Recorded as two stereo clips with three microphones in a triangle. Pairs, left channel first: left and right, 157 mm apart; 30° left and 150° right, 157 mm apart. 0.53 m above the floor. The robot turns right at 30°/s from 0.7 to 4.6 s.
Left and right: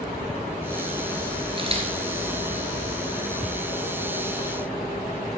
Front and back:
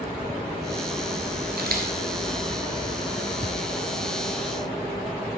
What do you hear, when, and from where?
1.6 s a camera shutter: 145° right, 2 m; by 1.9 s 140° right, 2 m